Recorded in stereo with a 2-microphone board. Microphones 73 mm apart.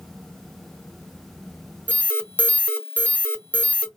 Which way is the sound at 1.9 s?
25° left (ahead or behind).